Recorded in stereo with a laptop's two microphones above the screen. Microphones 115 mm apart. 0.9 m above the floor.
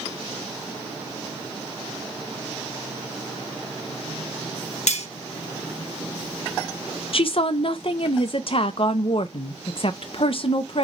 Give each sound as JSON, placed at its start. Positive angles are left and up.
{"t": 4.9, "sound": "cutlery clinking", "side_deg": 75, "distance_m": 0.8}
{"t": 7.1, "sound": "a woman speaking", "side_deg": 50, "distance_m": 0.5}